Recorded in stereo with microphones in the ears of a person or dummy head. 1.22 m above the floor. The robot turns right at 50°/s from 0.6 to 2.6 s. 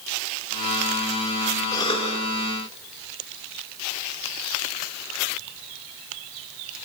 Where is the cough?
20° left (ahead or behind), 2.5 m; by 2.2 s 45° left (ahead or behind), 2.5 m.